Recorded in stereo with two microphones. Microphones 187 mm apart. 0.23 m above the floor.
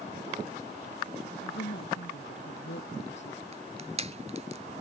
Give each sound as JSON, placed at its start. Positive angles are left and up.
{"t": 1.4, "sound": "a woman speaking", "side_deg": 75}
{"t": 3.5, "sound": "crushing", "side_deg": -35}